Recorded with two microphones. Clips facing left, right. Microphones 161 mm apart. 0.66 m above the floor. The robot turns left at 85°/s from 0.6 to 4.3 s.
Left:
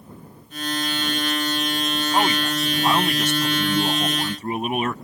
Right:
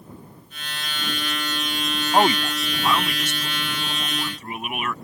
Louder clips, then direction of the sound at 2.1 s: Right 4 dB; 140° right.